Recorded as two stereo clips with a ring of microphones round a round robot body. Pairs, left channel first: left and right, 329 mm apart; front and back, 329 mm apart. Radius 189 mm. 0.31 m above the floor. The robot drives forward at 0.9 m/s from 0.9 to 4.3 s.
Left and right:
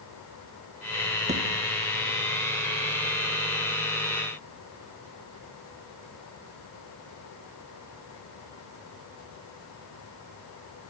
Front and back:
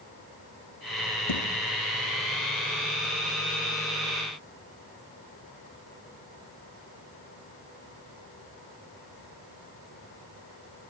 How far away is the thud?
About 5.5 m.